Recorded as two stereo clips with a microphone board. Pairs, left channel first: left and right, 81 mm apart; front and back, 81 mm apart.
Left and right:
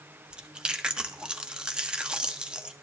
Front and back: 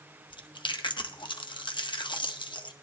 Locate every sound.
0.3 s chewing: 10° right, 0.8 m